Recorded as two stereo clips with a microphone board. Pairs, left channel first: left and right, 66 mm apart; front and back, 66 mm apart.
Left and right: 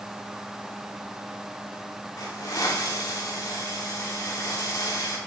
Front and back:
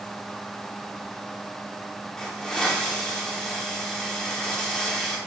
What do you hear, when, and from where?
2.2 s a hiss: 80° left, 2.5 m